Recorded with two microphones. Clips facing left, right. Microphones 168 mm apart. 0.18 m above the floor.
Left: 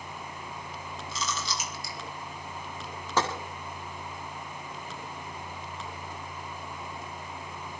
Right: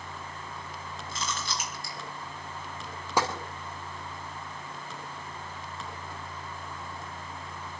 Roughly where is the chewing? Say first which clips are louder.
Left 1 dB; right.